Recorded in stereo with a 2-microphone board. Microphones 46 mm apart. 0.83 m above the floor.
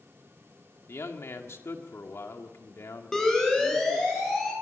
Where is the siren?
10° left (ahead or behind), 6 m; by 4.5 s 5° left (ahead or behind), 8.5 m.